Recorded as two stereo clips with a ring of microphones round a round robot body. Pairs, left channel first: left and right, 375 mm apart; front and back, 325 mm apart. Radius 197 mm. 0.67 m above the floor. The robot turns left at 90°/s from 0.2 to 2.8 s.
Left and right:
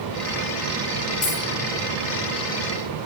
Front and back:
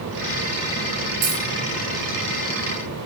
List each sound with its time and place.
1.2 s a dropped coin: 145° left, 3 m; by 1.4 s 130° left, 3 m